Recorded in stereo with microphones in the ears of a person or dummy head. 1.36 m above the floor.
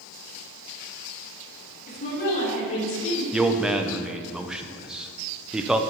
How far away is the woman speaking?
About 3 m.